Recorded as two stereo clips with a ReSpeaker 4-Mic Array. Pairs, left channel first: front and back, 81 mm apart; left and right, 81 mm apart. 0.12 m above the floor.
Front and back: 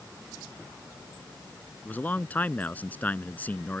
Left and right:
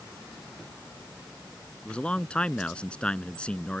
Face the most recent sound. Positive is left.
turn(degrees=30)